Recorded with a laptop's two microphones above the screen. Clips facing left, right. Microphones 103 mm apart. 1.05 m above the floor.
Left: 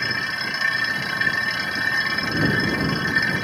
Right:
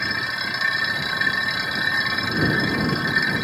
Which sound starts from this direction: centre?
A machine running, at 0.0 s.